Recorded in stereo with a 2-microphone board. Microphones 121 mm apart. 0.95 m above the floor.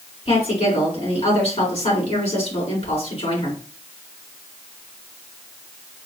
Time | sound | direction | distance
0.2 | a woman speaking | 60° left (ahead or behind) | 3 m